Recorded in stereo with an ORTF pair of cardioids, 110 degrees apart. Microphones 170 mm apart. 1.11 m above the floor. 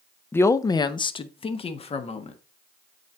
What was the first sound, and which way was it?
A woman speaking, 10° left.